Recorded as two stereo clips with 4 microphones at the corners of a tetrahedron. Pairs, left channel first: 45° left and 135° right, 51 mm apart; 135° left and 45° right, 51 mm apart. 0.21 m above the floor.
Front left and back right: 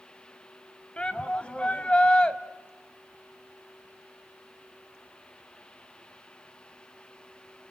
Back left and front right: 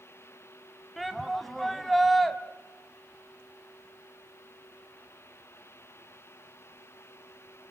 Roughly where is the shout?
Ahead left.